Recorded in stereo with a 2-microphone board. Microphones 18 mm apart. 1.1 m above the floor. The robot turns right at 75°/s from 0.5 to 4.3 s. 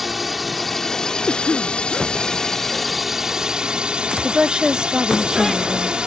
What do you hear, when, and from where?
0.0 s a drone: centre (ahead or behind); by 6.1 s 60° right (ahead or behind)
1.3 s a cough: 80° left; by 1.8 s 115° left
4.2 s a woman speaking: 50° right (ahead or behind); by 6.0 s 55° right (ahead or behind)